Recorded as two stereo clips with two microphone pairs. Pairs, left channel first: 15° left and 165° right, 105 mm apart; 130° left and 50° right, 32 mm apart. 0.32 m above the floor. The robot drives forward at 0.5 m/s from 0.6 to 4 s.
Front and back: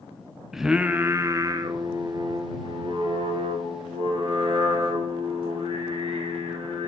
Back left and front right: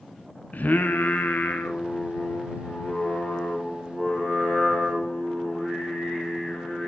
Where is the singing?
110° left, 0.6 m; by 6.9 s 165° left, 2.0 m.